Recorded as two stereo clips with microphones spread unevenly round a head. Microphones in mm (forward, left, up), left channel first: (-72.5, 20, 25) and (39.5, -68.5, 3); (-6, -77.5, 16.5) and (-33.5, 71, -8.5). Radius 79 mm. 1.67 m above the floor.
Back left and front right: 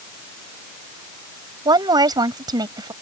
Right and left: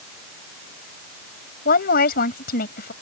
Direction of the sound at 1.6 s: 105° right.